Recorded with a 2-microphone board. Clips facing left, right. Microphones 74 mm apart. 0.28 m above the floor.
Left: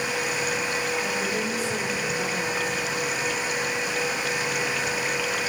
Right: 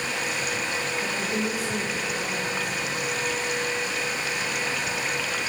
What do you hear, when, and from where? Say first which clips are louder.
1.0 s a woman speaking: left 1 dB; 30° right (ahead or behind), 9.5 m; by 2.8 s 35° right (ahead or behind), 8.5 m